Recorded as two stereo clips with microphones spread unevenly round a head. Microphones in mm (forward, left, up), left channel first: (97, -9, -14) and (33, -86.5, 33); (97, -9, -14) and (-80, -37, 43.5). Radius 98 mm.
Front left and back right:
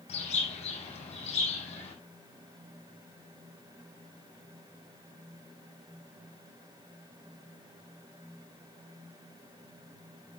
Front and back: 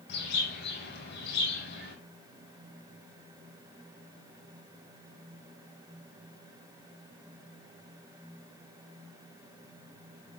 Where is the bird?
40° left, 6.5 m.